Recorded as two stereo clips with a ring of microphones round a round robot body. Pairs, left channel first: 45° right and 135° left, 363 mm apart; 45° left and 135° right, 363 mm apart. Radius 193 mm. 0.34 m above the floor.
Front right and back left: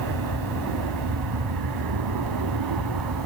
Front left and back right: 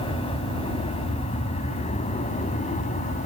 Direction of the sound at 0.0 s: 120° left.